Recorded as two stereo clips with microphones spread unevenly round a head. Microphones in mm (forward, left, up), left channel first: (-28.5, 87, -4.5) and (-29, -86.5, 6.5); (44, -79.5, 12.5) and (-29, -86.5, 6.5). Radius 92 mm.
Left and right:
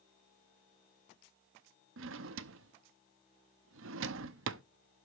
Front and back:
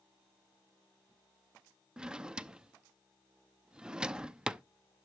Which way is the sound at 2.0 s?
95° right.